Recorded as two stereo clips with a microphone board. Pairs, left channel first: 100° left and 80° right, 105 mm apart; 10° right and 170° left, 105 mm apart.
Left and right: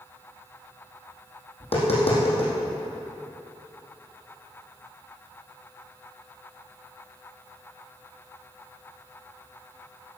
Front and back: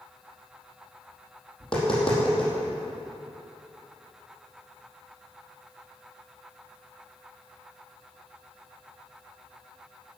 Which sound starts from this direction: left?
Tapping, at 1.6 s.